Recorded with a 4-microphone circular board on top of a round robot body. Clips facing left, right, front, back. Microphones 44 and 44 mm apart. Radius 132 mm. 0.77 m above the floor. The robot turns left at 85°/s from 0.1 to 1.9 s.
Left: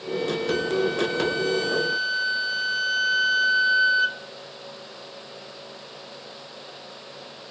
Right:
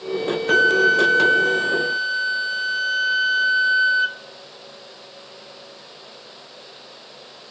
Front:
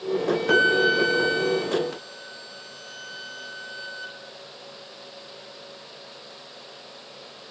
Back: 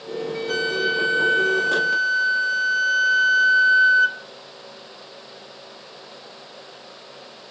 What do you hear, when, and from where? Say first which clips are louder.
0.5 s a flute: right 11 dB, front 4 dB; 55° right, 0.8 m; by 4.2 s 175° right, 0.8 m